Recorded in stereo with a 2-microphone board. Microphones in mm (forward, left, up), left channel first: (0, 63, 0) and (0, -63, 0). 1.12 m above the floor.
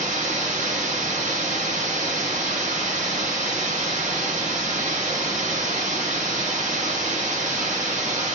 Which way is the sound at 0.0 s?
80° right.